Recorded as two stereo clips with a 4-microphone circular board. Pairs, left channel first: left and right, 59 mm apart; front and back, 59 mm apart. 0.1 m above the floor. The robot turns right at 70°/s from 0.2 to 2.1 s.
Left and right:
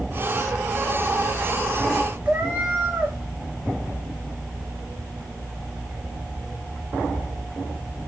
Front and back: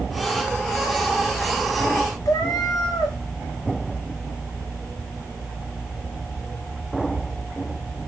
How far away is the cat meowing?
About 3.5 m.